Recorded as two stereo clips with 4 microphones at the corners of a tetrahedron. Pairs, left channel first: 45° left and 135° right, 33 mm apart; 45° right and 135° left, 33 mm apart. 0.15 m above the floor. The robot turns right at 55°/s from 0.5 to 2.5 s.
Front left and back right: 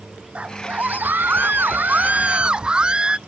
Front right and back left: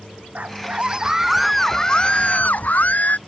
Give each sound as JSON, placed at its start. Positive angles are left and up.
{"t": 0.3, "sound": "a scream", "azimuth_deg": 170}